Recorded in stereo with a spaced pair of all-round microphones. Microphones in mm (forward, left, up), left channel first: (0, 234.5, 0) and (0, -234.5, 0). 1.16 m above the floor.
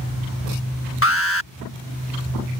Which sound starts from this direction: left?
An alarm, at 1.0 s.